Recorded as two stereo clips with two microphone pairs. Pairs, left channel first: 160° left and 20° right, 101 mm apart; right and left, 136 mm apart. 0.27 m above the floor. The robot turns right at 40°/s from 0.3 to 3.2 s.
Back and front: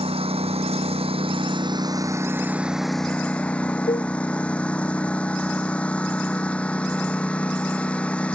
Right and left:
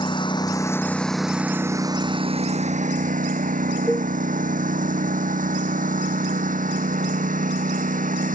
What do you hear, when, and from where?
0.0 s a lawn mower: 35° right; by 8.4 s 80° left
3.9 s a cowbell: 175° left